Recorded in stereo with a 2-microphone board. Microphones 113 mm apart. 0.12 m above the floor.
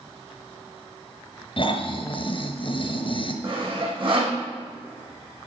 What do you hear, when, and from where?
1.6 s snoring: 50° left (ahead or behind), 1.1 m
3.4 s sawing: 50° right (ahead or behind), 3 m